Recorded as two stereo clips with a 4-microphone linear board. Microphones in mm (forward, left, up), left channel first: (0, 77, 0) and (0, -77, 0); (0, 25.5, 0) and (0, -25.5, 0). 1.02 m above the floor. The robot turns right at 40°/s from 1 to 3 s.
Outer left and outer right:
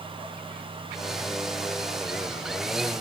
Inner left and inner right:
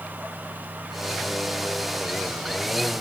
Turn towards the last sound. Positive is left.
No sound to turn to.